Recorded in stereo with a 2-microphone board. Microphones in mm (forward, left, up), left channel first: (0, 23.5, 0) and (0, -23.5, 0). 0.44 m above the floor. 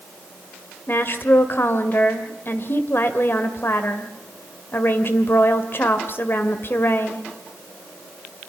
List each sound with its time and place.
0.9 s a woman speaking: 50° left (ahead or behind), 1.8 m